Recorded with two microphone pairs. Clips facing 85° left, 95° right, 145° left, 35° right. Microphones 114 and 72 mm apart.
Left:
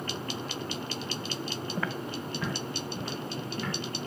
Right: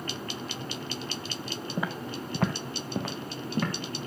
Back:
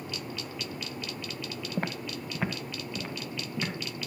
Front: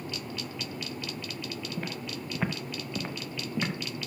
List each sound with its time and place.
1.8 s footsteps: 170° right, 0.7 m; by 3.7 s 95° right, 2.5 m